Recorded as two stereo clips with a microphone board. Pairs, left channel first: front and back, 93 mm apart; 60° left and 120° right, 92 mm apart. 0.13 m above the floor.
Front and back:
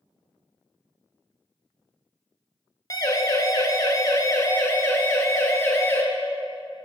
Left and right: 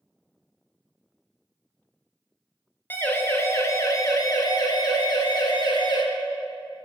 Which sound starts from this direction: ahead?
A siren, at 2.9 s.